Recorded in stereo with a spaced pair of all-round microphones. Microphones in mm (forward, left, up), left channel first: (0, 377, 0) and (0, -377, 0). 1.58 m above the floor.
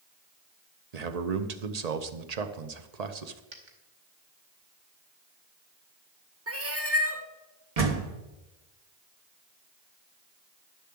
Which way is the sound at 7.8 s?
50° right (ahead or behind).